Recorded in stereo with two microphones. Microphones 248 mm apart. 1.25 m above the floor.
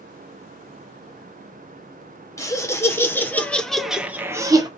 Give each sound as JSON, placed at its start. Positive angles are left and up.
{"t": 2.4, "sound": "laughter", "side_deg": 15, "distance_m": 1.1}